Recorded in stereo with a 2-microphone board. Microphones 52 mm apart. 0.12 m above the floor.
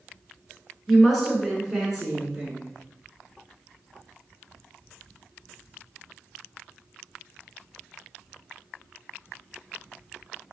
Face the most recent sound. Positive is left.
turn(degrees=-10)  # may be behind; listen again after turning